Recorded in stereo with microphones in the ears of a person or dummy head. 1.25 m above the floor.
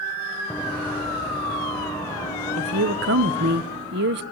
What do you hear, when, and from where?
0.5 s running footsteps: 10° left (ahead or behind), 3 m; by 3.6 s 20° left (ahead or behind), 6.5 m
2.6 s a woman speaking: 45° right (ahead or behind), 0.7 m